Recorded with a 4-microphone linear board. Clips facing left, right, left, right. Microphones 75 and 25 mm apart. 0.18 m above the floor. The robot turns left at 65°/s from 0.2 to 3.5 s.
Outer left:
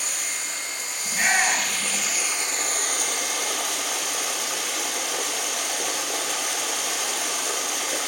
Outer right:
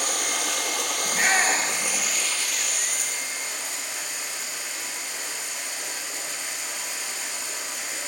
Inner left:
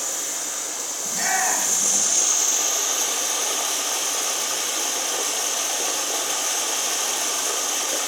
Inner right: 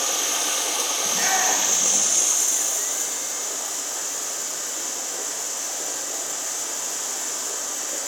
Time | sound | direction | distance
0.0 | running water | 55° right | 1.0 m
1.1 | a shout | 10° right (ahead or behind) | 1.7 m